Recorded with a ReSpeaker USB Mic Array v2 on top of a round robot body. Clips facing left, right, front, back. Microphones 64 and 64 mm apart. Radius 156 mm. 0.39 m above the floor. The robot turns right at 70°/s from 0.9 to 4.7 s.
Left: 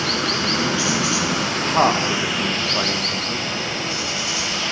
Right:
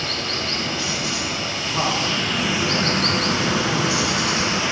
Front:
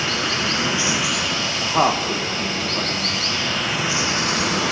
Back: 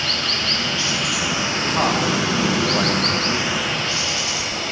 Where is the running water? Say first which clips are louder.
Left 5 dB, front 2 dB; 75° left, 1.1 m; by 4.7 s 20° right, 1.1 m.